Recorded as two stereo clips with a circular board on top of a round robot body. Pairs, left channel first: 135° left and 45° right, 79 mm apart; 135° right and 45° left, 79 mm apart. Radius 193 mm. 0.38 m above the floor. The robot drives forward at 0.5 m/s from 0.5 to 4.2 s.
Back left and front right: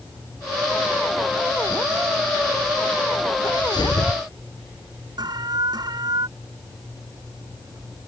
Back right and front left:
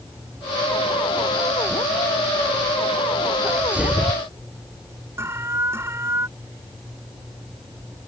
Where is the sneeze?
115° left; by 4.2 s 125° left.